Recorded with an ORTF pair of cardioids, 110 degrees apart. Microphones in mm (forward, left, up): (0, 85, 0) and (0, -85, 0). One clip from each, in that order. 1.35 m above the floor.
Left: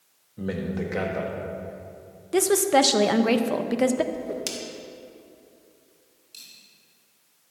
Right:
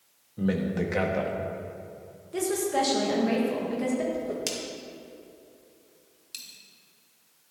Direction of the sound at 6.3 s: 45° right.